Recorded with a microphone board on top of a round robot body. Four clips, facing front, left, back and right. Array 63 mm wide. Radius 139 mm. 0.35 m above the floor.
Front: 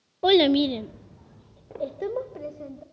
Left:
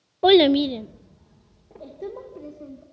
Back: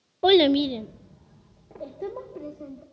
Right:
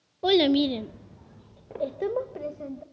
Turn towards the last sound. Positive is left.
turn(degrees=-60)